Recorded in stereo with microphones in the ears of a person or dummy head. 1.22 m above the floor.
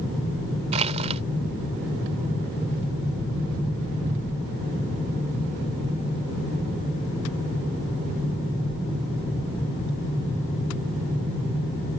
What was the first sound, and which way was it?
Crushing, 35° right (ahead or behind).